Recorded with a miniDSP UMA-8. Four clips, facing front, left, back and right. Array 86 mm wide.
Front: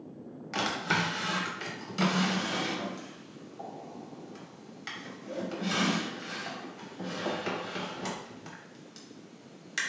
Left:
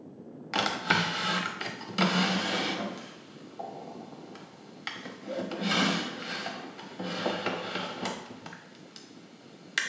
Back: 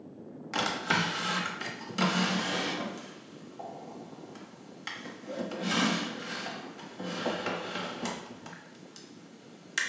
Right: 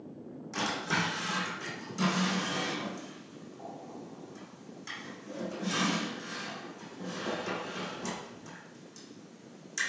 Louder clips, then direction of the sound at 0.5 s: Left 4 dB, even; 100° left.